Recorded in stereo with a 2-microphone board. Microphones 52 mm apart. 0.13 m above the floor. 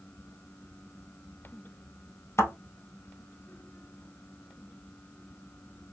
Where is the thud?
65° left (ahead or behind), 1.5 m.